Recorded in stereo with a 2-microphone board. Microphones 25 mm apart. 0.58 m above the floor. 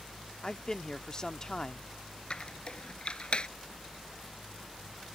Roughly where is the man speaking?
Left.